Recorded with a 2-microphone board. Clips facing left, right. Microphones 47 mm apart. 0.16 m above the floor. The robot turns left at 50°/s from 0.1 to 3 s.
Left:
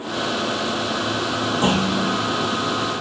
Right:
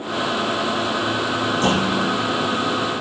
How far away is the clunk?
About 4.5 m.